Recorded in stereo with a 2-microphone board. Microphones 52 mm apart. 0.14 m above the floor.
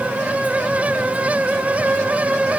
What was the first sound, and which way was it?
Only background noise.